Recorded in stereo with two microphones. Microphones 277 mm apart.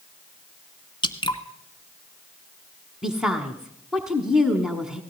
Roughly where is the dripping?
Centre.